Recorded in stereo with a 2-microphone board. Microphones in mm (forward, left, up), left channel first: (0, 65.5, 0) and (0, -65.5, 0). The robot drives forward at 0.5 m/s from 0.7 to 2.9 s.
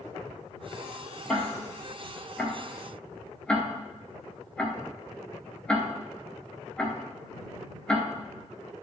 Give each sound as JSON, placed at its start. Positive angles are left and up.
{"t": 1.3, "sound": "ticking", "side_deg": 5, "distance_m": 1.7}